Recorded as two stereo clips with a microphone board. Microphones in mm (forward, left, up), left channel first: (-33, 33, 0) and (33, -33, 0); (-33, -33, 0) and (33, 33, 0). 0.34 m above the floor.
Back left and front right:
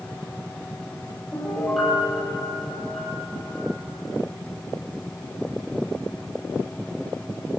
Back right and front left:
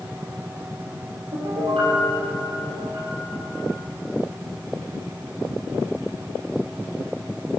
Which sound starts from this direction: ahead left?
A piano, at 1.3 s.